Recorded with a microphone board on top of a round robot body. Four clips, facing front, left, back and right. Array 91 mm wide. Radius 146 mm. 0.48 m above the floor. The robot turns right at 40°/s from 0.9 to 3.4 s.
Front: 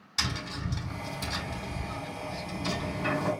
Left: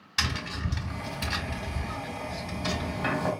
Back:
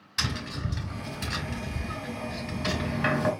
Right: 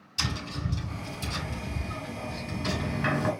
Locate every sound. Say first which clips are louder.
0.2 s tapping: left 1 dB, back 2 dB; 105° left, 3 m; by 3.3 s 160° right, 3 m